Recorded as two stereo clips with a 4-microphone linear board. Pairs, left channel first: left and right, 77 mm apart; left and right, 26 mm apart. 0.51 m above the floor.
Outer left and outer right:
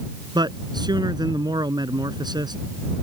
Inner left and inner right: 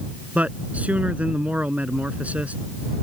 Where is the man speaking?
70° right (ahead or behind).